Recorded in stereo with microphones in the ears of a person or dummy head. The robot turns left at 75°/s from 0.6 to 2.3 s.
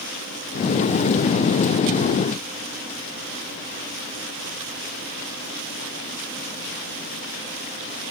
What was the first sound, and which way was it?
Only background noise.